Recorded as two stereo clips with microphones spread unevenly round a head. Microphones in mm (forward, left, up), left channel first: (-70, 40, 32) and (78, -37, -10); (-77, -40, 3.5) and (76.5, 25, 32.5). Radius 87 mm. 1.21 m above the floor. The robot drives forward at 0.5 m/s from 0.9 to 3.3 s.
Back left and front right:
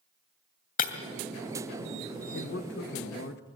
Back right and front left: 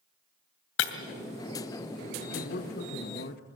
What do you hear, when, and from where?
0.8 s breaking glass: 175° right, 2.5 m
2.3 s a man speaking: 175° right, 1.5 m; by 3.4 s straight behind, 2.0 m